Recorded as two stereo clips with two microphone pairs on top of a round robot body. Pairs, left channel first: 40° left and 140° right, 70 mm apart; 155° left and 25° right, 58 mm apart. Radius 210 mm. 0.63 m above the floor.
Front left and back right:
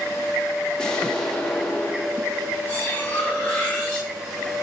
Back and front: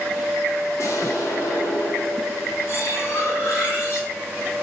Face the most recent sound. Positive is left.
turn(degrees=110)